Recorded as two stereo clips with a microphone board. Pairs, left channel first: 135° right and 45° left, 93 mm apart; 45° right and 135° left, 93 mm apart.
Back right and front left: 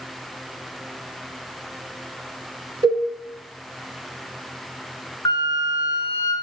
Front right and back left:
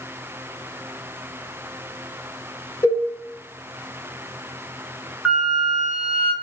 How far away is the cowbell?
About 0.6 m.